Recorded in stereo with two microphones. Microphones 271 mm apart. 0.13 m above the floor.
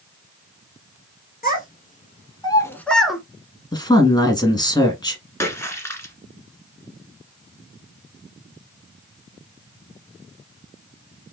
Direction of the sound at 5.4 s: 10° left (ahead or behind).